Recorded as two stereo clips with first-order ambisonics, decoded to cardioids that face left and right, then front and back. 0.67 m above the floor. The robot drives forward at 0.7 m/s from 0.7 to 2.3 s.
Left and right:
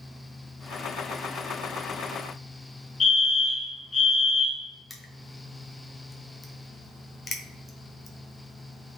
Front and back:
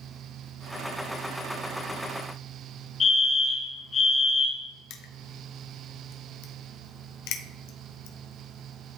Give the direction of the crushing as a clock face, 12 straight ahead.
12 o'clock.